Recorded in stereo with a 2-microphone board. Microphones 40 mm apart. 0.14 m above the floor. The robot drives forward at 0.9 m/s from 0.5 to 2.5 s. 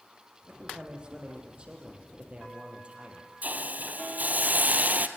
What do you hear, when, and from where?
0.5 s a man speaking: 25° right (ahead or behind), 7 m; by 3.3 s 30° right (ahead or behind), 5.5 m
3.4 s a hiss: 45° right (ahead or behind), 1.5 m